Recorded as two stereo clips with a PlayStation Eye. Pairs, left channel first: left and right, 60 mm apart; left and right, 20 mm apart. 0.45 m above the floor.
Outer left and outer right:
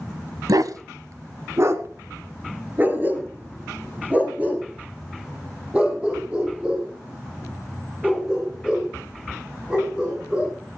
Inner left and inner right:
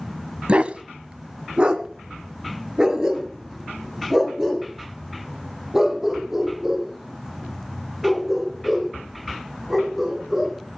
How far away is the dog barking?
About 0.8 m.